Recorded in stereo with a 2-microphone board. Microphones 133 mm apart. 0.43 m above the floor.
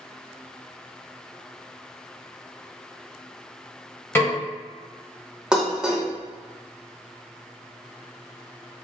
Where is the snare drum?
20° left (ahead or behind), 2 m.